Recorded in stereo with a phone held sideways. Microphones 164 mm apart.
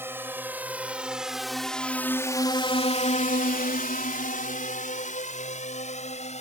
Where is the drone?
15° right (ahead or behind); by 6.4 s 45° left (ahead or behind).